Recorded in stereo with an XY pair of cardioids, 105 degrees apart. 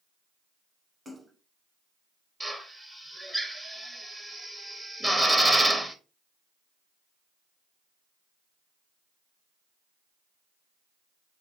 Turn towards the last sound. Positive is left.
turn(degrees=-15)